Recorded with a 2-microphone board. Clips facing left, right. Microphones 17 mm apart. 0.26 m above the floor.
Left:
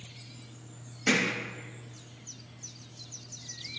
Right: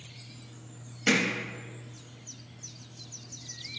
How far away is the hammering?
About 0.8 m.